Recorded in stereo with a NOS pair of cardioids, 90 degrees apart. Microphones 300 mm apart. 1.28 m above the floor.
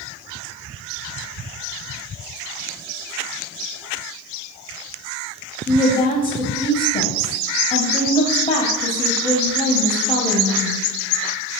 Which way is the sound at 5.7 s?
30° left.